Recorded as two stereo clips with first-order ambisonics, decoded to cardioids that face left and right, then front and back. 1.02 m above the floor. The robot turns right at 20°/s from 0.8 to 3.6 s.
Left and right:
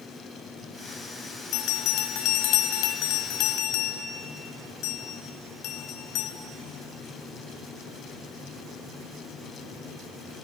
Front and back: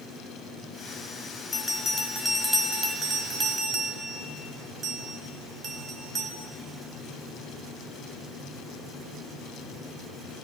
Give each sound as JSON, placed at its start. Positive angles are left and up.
{"t": 1.5, "sound": "a bell", "azimuth_deg": 75, "distance_m": 1.8}